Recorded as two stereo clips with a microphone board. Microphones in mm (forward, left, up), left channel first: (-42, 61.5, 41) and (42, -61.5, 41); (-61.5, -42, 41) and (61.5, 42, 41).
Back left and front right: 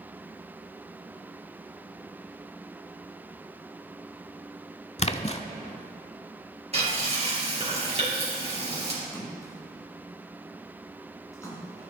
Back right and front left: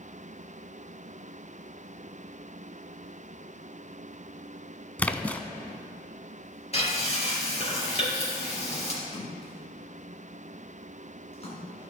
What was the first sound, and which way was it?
A splash, 140° left.